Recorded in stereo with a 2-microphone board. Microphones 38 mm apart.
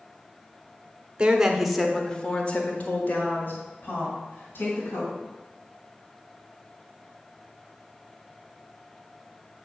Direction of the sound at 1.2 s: 25° right (ahead or behind).